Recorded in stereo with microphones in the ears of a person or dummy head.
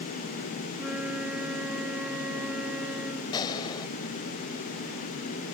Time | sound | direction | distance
0.7 | a flute | 10° right (ahead or behind) | ?
3.3 | a gunshot | 25° left (ahead or behind) | ?